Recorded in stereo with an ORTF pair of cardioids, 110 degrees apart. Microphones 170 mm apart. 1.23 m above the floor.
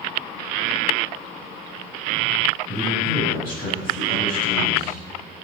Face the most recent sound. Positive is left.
turn(degrees=60)